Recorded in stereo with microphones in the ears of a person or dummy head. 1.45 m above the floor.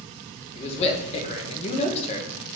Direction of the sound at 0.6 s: 40° left (ahead or behind).